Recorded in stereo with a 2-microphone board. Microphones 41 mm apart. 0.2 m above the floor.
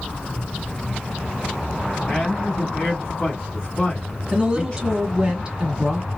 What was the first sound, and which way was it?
A man speaking, 25° left (ahead or behind).